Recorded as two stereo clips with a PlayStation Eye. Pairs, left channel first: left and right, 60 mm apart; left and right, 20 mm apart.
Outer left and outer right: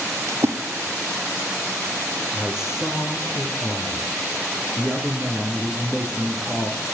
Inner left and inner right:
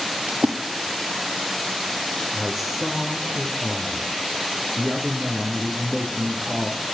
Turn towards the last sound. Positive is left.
turn(degrees=-10)  # may be behind; listen again after turning